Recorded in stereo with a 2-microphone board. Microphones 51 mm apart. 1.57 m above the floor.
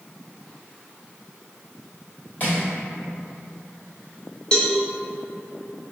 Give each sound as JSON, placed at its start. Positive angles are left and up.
{"t": 2.4, "sound": "crushing", "side_deg": 40, "distance_m": 2.0}
{"t": 4.5, "sound": "a cowbell", "side_deg": 20, "distance_m": 0.6}